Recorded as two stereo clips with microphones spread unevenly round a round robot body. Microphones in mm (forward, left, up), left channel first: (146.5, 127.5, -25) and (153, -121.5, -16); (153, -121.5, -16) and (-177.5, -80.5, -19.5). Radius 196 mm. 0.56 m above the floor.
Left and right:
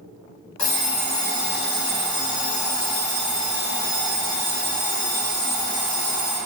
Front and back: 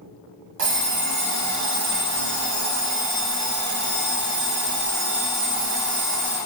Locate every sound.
0.6 s an alarm clock: 135° left, 1.1 m